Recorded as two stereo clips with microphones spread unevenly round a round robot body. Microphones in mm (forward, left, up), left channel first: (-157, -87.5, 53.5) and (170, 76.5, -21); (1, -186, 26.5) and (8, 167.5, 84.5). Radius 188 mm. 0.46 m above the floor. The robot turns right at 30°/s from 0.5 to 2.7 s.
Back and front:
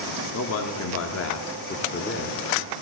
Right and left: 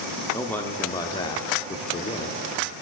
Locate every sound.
0.3 s a man speaking: 145° right, 1.2 m; by 2.7 s 80° right, 1.2 m